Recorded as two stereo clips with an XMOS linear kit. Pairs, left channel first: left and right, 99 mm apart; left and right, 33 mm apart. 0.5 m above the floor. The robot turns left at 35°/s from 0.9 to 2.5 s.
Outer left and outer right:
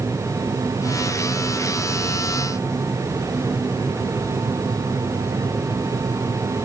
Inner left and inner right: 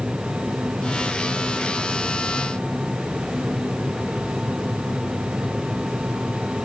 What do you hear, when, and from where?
Only background noise.